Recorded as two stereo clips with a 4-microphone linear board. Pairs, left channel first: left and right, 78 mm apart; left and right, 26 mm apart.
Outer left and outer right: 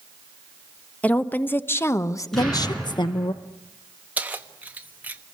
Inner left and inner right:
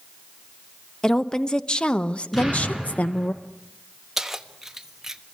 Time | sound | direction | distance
1.0 | a woman speaking | 20° left (ahead or behind) | 1.3 m
2.3 | an explosion | 5° left (ahead or behind) | 10 m
4.2 | keys jangling | 20° right (ahead or behind) | 1.4 m